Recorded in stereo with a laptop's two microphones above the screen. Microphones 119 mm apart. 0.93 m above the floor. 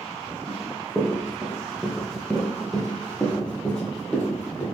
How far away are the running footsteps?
About 1.0 m.